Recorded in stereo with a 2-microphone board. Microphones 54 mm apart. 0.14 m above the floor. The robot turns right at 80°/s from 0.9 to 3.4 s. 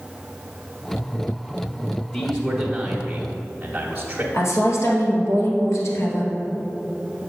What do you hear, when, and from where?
2.1 s a man speaking: 10° left (ahead or behind), 1.1 m; by 4.2 s 20° right (ahead or behind), 1.1 m
4.3 s a woman speaking: 65° left (ahead or behind), 2.5 m